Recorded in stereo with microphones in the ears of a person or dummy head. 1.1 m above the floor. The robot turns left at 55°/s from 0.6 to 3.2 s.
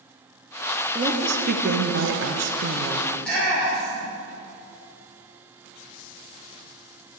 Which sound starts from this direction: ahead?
A woman speaking, at 0.9 s.